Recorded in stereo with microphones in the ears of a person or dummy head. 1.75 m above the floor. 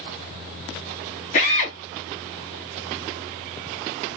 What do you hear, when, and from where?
1.3 s a drill: 35° left (ahead or behind), 1.4 m